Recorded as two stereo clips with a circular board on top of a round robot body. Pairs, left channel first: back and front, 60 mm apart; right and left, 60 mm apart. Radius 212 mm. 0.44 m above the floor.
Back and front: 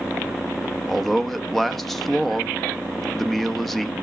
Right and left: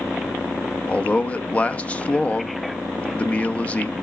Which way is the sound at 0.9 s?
100° right.